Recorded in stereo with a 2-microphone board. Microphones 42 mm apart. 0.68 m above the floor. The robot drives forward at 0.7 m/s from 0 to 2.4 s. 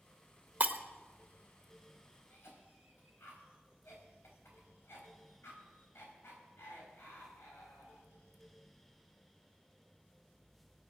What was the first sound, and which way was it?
Breaking glass, 35° right (ahead or behind).